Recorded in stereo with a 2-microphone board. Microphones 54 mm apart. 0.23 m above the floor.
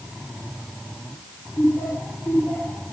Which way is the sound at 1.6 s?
60° left (ahead or behind).